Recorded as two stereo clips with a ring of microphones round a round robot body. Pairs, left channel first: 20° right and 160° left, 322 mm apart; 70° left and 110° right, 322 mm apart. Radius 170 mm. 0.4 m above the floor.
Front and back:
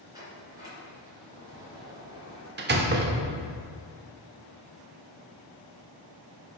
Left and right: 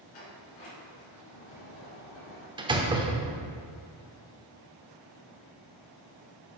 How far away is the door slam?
About 0.8 m.